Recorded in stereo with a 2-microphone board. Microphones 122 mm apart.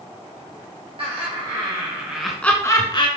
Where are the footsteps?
I don't hear footsteps.